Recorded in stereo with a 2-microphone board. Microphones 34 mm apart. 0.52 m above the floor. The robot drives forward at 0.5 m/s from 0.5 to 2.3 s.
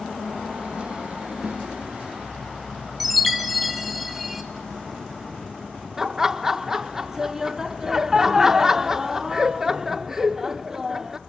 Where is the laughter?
15° right (ahead or behind), 0.8 m.